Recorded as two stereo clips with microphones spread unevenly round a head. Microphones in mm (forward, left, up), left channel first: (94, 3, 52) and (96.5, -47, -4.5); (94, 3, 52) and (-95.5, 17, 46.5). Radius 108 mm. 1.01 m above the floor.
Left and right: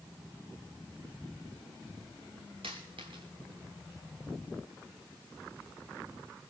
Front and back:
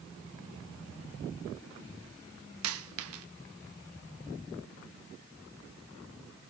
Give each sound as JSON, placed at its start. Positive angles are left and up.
{"t": 2.6, "sound": "a dropped coin", "azimuth_deg": -170, "distance_m": 0.8}